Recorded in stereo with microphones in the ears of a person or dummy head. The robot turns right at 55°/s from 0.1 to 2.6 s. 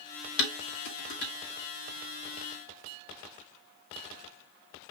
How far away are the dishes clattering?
About 2.5 m.